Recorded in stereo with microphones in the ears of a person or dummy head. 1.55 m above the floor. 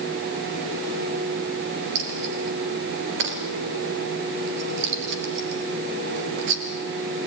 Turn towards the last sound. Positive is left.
turn(degrees=-70)  # may be behind; listen again after turning